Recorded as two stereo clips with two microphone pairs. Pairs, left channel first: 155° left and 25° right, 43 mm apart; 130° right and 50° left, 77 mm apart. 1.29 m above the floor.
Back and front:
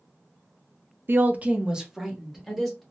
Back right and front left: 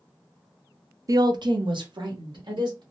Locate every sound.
1.1 s a woman speaking: 10° left, 0.5 m; by 2.8 s 70° left, 1.4 m